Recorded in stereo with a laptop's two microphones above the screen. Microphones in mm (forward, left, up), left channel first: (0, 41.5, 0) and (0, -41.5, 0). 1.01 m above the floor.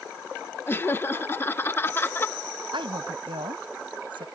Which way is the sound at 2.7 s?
75° right (ahead or behind).